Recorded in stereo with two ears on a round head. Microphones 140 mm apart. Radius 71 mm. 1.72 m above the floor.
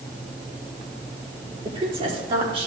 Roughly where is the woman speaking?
Right.